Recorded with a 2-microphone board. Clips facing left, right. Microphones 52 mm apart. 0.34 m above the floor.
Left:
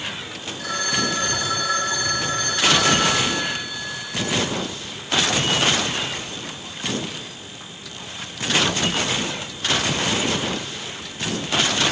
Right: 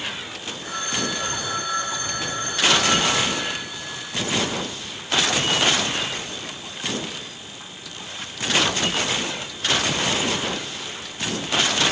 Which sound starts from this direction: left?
A phone ringing, at 0.6 s.